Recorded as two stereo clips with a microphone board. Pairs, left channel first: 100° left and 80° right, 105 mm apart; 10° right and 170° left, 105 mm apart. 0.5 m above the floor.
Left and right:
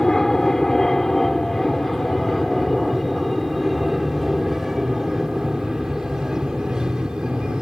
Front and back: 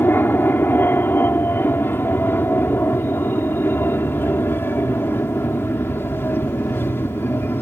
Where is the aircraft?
25° left; by 7.6 s 10° right.